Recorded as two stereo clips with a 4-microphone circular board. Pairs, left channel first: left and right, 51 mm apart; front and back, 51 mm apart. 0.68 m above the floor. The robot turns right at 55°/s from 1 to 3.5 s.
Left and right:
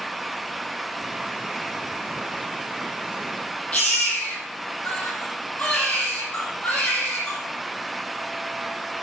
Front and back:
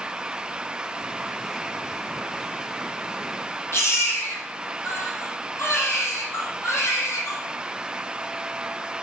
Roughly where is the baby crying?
Ahead left.